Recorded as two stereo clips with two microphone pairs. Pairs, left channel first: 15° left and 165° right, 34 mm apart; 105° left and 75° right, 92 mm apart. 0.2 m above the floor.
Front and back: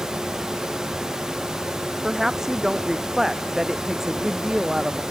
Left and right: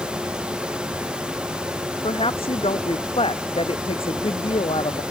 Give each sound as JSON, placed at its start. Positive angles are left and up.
{"t": 2.0, "sound": "a woman speaking", "azimuth_deg": 115}